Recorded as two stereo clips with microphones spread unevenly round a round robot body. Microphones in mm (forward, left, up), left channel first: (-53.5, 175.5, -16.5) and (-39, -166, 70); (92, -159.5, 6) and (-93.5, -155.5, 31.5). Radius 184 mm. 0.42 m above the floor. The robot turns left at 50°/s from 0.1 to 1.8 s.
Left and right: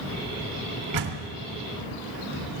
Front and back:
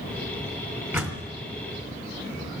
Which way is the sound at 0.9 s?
100° right.